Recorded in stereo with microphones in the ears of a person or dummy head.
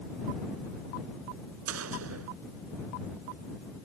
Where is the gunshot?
85° right.